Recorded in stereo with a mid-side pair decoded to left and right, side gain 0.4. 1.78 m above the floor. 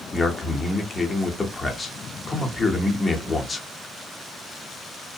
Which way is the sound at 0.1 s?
35° left.